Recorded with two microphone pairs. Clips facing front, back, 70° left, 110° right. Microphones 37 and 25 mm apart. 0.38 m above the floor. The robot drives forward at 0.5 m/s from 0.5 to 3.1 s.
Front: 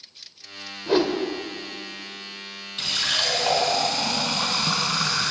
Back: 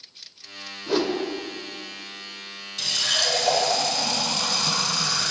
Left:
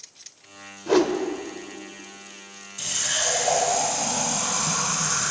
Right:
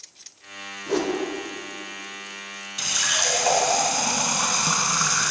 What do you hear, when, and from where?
0.9 s a whoosh: 50° left, 1.2 m; by 1.2 s 60° left, 1.1 m
2.8 s a running tap: 60° right, 2.5 m; by 5.3 s 65° right, 2.5 m